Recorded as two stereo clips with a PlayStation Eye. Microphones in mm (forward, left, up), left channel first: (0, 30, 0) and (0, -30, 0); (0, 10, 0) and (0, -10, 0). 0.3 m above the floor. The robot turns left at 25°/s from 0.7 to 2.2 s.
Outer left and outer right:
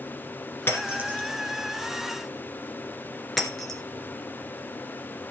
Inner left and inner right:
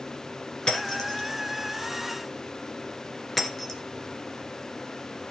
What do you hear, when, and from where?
0.7 s breaking glass: 40° left (ahead or behind), 2.5 m; by 3.8 s 5° left (ahead or behind), 2.5 m